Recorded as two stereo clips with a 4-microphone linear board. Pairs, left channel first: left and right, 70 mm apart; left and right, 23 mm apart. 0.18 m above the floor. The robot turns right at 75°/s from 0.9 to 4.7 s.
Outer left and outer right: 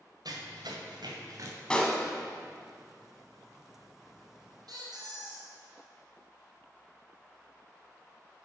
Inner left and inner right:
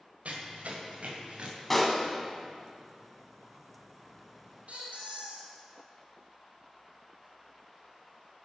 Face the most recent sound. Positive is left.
turn(degrees=-65)  # may be behind; listen again after turning